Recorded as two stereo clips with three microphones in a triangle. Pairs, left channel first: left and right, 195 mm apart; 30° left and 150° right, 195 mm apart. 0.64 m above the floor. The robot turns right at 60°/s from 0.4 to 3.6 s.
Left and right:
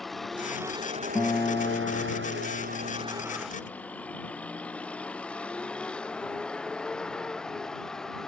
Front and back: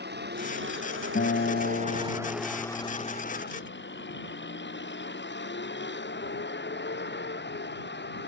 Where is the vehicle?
Straight behind; by 8.3 s 5° left.